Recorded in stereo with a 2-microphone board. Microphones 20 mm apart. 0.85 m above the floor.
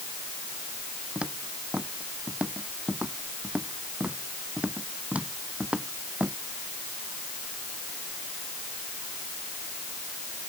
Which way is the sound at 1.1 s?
75° right (ahead or behind).